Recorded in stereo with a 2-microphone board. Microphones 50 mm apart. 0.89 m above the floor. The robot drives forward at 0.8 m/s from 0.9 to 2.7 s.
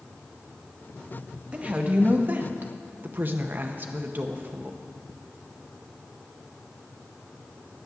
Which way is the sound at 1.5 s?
25° right (ahead or behind).